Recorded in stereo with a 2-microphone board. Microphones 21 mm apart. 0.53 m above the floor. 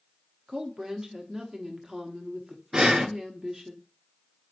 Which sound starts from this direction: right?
Breathing, at 2.7 s.